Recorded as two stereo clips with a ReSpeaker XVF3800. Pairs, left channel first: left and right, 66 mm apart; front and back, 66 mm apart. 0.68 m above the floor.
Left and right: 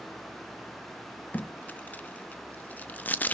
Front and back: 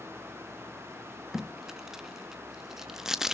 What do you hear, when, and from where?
1.3 s tape being pulled: 105° left, 0.6 m